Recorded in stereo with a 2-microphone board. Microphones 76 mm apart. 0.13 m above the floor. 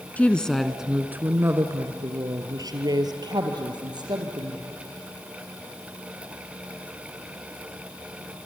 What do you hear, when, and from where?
0.2 s a woman speaking: 20° left (ahead or behind), 1.1 m; by 4.6 s 75° right (ahead or behind), 3.5 m